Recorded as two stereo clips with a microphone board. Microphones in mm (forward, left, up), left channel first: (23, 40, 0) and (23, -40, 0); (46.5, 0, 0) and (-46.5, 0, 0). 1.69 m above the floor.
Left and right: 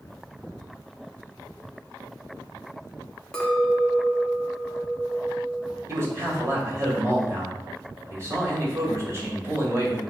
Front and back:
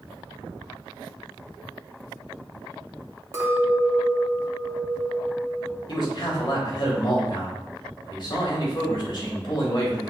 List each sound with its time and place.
3.3 s a clink: 165° left, 0.7 m
5.9 s a man speaking: 35° right, 1.4 m